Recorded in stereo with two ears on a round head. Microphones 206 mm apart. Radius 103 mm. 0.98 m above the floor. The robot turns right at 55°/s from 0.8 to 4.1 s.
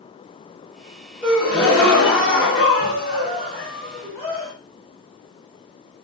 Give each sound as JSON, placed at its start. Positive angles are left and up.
{"t": 1.2, "sound": "a gasp", "azimuth_deg": 5, "distance_m": 1.3}